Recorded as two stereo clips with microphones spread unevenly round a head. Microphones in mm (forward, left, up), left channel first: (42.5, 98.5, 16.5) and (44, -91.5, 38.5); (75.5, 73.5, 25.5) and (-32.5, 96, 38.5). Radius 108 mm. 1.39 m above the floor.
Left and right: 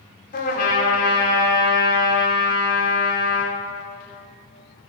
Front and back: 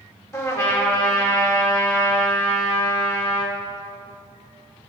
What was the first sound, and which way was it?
A trumpet, 50° left.